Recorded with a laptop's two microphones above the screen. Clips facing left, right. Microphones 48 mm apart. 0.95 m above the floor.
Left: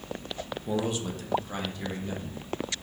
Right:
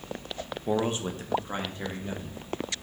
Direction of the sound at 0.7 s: 35° right (ahead or behind).